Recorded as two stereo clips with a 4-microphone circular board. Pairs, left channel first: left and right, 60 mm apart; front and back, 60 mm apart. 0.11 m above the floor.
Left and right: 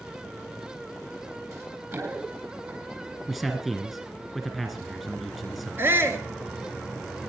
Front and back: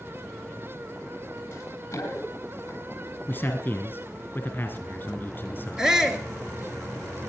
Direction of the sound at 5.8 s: 105° right.